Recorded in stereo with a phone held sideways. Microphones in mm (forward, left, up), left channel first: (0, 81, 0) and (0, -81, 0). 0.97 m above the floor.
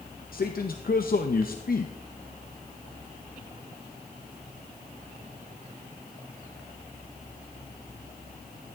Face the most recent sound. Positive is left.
turn(degrees=65)  # may be behind; listen again after turning